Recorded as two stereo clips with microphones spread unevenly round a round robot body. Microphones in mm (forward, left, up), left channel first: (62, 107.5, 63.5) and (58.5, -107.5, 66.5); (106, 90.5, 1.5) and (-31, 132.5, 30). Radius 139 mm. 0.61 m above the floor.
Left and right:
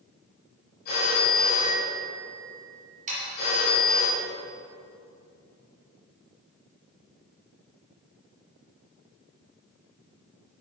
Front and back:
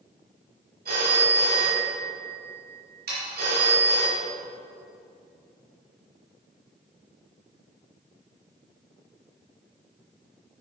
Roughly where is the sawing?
Behind right.